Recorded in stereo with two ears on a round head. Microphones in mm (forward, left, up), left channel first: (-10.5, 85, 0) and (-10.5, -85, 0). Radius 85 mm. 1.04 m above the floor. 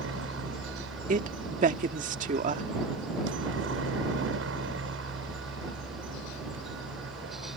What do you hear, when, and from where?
0.0 s a helicopter: 70° right (ahead or behind)
1.1 s a woman speaking: 45° right (ahead or behind)